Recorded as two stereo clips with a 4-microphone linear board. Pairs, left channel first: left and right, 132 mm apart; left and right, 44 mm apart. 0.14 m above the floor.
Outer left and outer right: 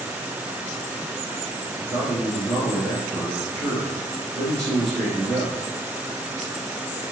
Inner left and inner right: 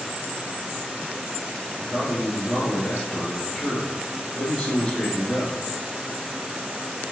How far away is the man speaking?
About 1.3 m.